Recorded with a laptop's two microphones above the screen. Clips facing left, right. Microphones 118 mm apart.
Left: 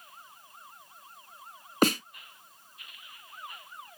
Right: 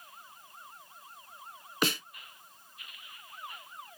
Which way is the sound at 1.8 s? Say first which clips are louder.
Left 7 dB; 45° left (ahead or behind).